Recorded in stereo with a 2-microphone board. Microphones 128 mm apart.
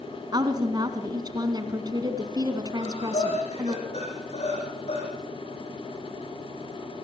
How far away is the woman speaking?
About 1.7 m.